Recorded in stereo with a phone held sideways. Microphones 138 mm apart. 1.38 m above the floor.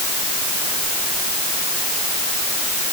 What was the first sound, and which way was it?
Only background noise.